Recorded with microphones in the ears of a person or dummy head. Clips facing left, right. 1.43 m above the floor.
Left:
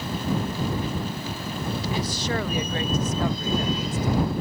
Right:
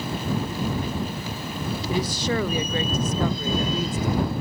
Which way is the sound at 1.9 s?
70° right (ahead or behind).